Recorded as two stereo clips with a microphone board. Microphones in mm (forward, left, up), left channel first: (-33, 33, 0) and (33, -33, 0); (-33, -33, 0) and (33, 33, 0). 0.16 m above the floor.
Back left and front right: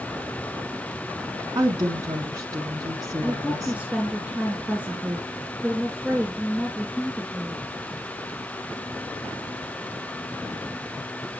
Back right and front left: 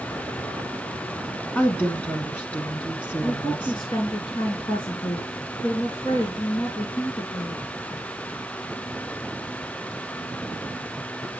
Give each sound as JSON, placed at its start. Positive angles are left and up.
{"t": 1.6, "sound": "a woman speaking", "azimuth_deg": -70, "distance_m": 1.4}
{"t": 3.2, "sound": "a woman speaking", "azimuth_deg": -120, "distance_m": 2.0}